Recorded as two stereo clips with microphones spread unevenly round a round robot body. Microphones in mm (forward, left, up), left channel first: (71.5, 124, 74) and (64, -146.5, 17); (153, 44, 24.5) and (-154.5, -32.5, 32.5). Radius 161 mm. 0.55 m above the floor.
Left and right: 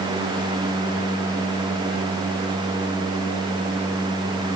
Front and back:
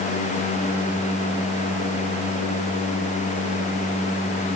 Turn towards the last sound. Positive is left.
No sound to turn to.